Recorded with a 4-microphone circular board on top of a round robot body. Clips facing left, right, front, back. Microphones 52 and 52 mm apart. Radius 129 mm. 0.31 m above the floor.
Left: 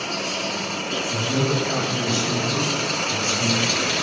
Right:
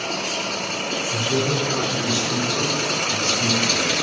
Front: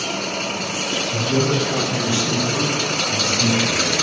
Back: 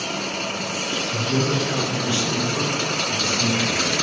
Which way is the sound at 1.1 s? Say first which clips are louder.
Even, front 3 dB; 65° left.